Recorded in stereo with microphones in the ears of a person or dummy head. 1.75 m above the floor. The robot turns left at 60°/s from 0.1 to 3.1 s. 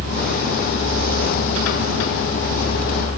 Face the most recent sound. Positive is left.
No sound to turn to.